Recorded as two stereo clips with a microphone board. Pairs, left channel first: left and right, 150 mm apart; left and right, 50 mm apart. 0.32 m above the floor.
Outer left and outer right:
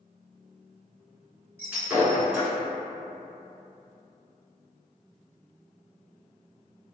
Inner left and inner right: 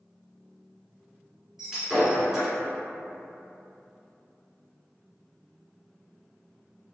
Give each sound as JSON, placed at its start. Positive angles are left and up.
{"t": 1.6, "sound": "breaking glass", "side_deg": -10, "distance_m": 1.5}